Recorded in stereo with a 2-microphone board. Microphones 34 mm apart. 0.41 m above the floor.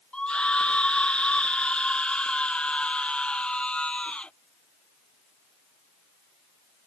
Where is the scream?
30° left (ahead or behind).